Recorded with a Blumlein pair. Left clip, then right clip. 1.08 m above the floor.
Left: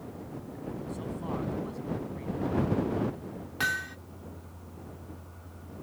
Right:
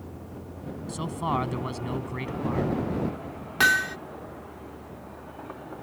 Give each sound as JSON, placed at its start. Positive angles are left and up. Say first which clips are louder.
{"t": 0.9, "sound": "a man speaking", "louder": "right 11 dB", "azimuth_deg": -55}
{"t": 3.6, "sound": "hammering", "louder": "right 9 dB", "azimuth_deg": -65}